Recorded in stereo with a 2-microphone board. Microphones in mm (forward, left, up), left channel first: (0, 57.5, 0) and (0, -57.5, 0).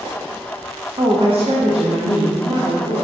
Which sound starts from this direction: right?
A woman speaking, at 1.0 s.